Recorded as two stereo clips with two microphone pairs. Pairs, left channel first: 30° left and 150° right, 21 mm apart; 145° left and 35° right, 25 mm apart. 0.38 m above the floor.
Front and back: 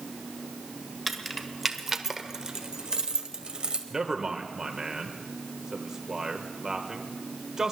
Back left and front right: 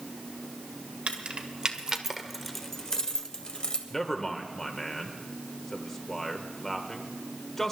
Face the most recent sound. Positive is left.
turn(degrees=-165)